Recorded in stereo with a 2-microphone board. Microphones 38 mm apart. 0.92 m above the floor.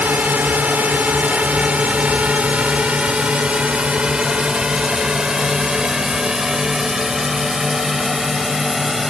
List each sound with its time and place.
0.0 s a drone: 50° right (ahead or behind); by 9.1 s 5° right (ahead or behind)